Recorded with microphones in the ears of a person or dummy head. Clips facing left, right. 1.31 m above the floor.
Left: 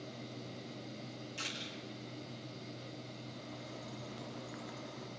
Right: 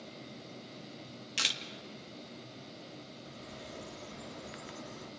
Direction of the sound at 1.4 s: 80° right.